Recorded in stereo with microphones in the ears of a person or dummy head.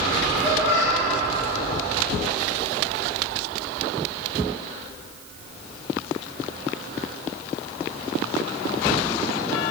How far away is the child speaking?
About 2 m.